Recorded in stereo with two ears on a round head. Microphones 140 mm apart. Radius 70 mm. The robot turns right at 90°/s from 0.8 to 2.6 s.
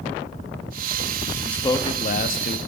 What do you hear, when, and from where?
1.4 s a man speaking: 5° left, 1.1 m; by 2.6 s 105° left, 1.1 m